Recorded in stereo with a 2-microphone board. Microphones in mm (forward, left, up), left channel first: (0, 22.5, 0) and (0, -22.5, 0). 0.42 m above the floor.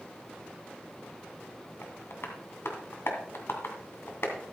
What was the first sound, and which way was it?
Tapping, 60° left (ahead or behind).